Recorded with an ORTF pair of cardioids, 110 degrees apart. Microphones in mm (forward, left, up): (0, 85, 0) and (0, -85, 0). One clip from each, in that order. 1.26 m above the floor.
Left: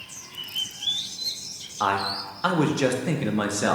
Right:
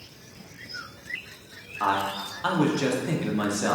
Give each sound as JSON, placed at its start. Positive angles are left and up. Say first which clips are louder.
{"t": 1.8, "sound": "a man speaking", "louder": "left 1 dB", "azimuth_deg": 20, "distance_m": 0.5}